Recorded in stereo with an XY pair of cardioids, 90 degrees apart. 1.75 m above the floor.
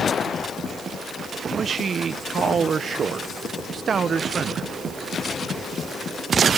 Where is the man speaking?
50° right, 1.3 m.